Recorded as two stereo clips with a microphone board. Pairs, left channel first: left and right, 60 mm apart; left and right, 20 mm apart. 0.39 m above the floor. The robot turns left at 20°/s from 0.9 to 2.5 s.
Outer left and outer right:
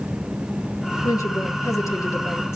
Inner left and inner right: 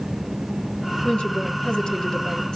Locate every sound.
1.0 s a woman speaking: 75° left (ahead or behind), 5.5 m; by 2.6 s 50° left (ahead or behind), 5.5 m